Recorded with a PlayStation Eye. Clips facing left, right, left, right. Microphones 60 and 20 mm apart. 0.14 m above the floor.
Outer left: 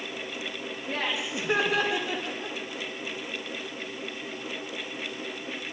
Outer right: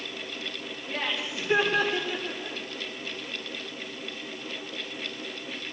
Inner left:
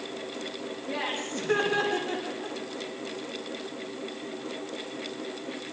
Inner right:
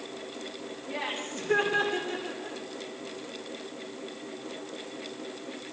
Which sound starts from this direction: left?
Laughter, at 0.9 s.